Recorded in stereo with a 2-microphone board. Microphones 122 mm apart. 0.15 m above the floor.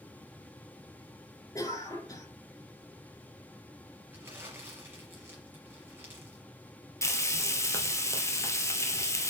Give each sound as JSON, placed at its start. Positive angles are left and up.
{"t": 1.6, "sound": "a cough", "side_deg": 25, "distance_m": 4.0}
{"t": 4.1, "sound": "crumpling", "side_deg": -20, "distance_m": 4.0}
{"t": 7.0, "sound": "frying", "side_deg": 25, "distance_m": 1.9}